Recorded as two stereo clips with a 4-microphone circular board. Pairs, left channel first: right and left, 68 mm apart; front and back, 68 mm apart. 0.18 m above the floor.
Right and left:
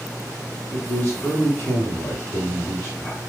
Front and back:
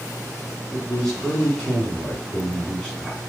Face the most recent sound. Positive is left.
turn(degrees=-70)